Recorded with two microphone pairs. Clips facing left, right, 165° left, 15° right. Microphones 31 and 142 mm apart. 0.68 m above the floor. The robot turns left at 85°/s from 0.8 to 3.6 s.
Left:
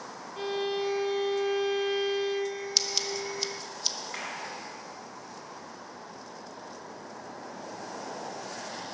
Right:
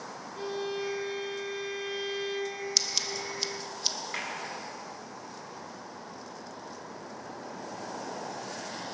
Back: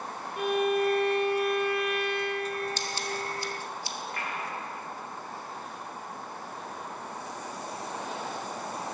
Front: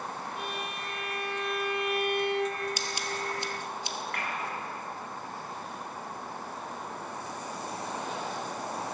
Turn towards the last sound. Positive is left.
turn(degrees=-20)